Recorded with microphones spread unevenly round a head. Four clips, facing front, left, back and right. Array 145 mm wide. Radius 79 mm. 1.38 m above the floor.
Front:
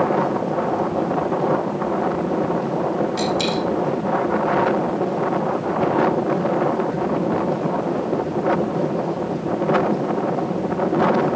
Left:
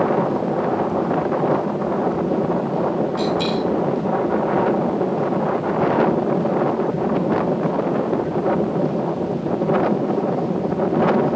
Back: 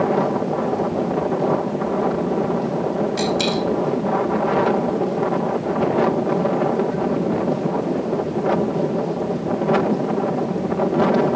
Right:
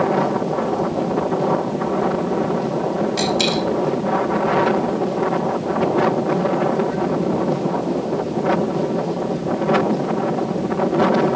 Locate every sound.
3.2 s a dropped coin: 80° right, 4 m